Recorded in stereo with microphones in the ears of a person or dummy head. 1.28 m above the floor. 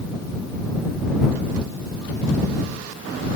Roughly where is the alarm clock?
I don't hear an alarm clock.